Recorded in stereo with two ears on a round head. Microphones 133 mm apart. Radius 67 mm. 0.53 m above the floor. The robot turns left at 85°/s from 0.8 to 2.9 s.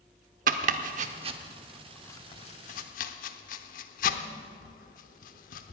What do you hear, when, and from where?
0.5 s chopping: 60° right (ahead or behind), 0.8 m; by 5.7 s 60° left (ahead or behind), 0.8 m